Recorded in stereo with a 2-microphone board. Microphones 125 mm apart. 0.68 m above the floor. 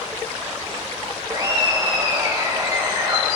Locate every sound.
1.3 s laughter: 35° right (ahead or behind), 0.8 m